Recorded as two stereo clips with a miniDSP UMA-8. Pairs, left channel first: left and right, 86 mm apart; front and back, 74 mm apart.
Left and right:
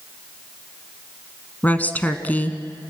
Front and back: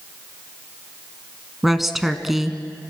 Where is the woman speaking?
100° left, 1.3 m.